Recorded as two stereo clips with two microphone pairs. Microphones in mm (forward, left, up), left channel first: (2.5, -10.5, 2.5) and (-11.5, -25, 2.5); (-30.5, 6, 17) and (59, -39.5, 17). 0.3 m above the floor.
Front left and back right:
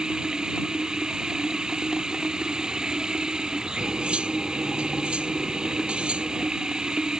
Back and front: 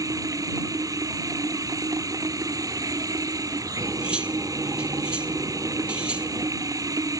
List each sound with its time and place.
0.0 s running water: 80° right
3.8 s cutlery clinking: 105° right